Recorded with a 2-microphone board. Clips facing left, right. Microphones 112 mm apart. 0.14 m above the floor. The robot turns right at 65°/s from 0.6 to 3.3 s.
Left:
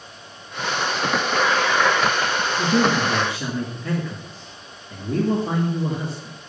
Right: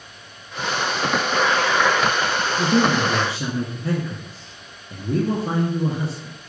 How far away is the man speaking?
About 2.5 m.